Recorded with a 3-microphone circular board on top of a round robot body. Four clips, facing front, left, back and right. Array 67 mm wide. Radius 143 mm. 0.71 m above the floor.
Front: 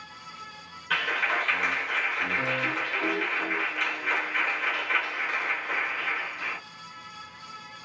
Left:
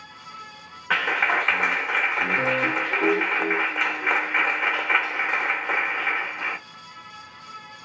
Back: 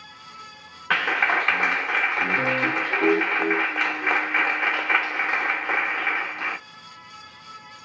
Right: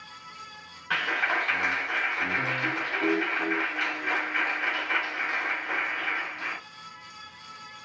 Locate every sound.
0.9 s a clap: 145° left, 0.7 m